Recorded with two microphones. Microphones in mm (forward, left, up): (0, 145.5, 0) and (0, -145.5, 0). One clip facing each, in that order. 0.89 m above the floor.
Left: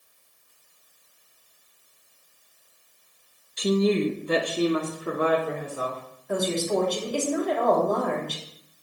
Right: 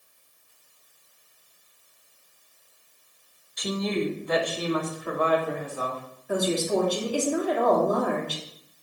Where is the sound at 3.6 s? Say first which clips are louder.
Left 6 dB; 35° left (ahead or behind), 0.6 m; by 6.0 s 30° left (ahead or behind), 2.5 m.